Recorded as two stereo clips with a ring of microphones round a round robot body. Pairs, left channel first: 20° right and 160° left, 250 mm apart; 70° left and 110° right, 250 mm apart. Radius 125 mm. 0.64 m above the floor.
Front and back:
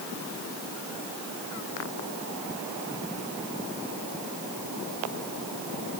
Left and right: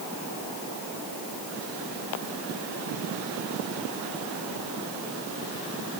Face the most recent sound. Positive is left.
No sound to turn to.